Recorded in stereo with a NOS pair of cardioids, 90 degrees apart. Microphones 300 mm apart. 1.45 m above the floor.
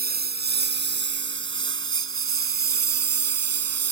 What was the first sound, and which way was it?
A lawn mower, 30° right.